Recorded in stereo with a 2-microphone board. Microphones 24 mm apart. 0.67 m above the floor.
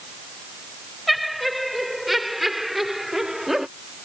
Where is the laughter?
Centre (ahead or behind); by 3.7 s 20° right (ahead or behind).